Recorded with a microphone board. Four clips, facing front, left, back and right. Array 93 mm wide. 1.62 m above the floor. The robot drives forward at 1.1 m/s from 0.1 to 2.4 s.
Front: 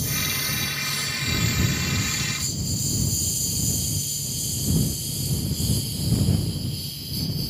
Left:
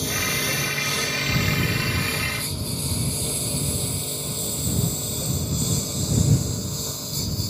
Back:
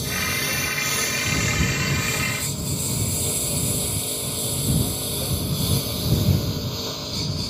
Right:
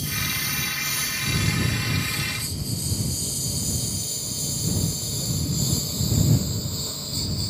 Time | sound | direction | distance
0.0 | a lawn mower | 115° left | ?